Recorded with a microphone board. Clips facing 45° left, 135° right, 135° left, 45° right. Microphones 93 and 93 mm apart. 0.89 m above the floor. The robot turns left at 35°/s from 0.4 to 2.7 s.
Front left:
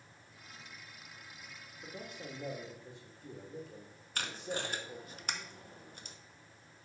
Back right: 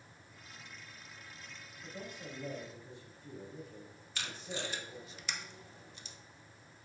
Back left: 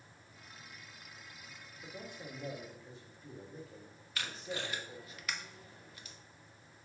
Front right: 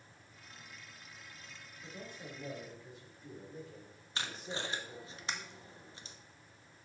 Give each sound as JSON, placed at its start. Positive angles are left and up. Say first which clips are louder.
{"t": 1.8, "sound": "a man speaking", "louder": "even, back left 1 dB", "azimuth_deg": 75, "distance_m": 2.5}
{"t": 4.2, "sound": "tape being pulled", "louder": "front left 3 dB, even", "azimuth_deg": 15, "distance_m": 0.7}